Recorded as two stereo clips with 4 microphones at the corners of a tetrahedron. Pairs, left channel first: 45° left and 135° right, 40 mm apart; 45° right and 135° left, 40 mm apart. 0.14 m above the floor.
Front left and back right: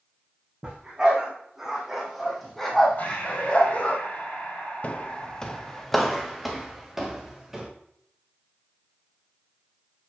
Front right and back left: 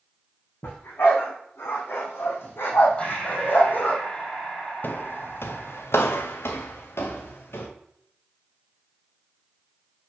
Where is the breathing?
15° left, 4.5 m.